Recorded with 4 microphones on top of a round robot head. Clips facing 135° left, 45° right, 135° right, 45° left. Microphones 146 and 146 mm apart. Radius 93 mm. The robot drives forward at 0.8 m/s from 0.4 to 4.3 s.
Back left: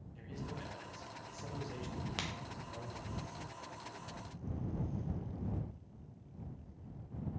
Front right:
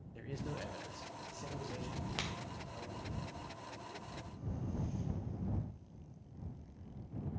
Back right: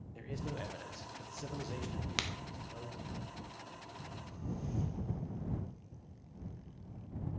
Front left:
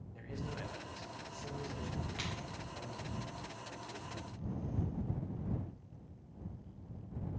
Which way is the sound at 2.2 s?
135° right.